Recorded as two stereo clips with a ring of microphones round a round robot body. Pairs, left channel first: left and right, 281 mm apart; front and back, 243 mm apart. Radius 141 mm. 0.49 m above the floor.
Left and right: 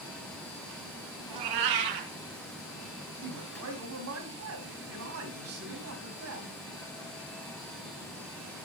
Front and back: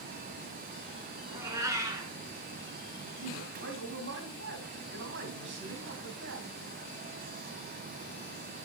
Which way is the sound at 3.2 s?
130° right.